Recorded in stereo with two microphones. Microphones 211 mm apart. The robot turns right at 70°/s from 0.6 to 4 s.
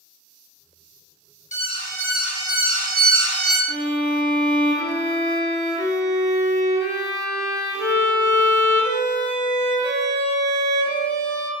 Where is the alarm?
135° left, 0.6 m; by 3.6 s 80° right, 0.6 m.